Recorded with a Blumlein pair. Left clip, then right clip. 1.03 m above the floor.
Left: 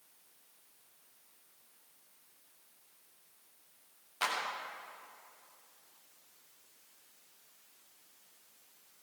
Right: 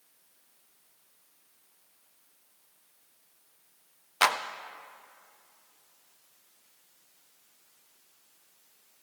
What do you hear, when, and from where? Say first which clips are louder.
4.2 s a clap: right 9 dB; 60° right, 0.6 m